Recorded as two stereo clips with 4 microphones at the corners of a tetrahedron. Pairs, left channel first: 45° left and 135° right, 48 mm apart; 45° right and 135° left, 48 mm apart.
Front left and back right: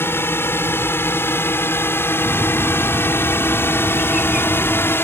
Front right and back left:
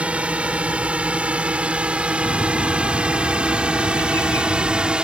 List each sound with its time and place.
0.0 s a drone: 75° left; by 5.0 s 70° left
2.2 s a bird: 60° right